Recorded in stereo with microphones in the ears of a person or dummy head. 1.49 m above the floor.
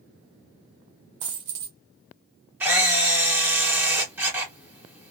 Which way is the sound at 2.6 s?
10° right (ahead or behind).